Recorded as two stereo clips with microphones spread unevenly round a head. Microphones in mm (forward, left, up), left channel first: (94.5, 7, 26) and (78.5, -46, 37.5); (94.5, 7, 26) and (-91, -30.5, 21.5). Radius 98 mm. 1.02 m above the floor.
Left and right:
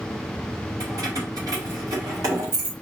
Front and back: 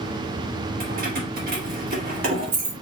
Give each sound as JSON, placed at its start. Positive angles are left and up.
{"t": 0.8, "sound": "keys jangling", "azimuth_deg": -125, "distance_m": 2.0}